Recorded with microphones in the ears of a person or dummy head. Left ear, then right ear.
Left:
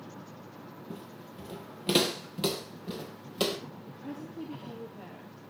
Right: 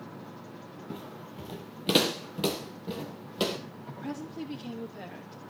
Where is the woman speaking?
50° right (ahead or behind), 2.5 m.